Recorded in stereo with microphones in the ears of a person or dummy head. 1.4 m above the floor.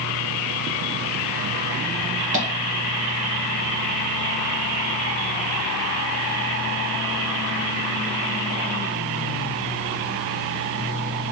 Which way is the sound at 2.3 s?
40° right (ahead or behind).